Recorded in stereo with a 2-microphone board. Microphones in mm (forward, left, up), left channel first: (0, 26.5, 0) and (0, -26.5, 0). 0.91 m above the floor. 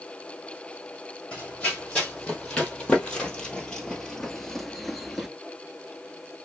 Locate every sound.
1.3 s running footsteps: 25° left (ahead or behind), 2.5 m; by 5.3 s 5° right (ahead or behind), 0.8 m